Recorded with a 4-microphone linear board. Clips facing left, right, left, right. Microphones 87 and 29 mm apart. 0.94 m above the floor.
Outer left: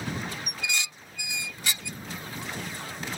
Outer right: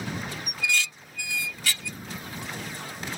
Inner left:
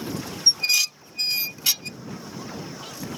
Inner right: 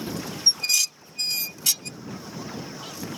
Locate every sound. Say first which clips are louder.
0.5 s dishes clattering: outer right 4 dB, inner left 2 dB; 20° left (ahead or behind)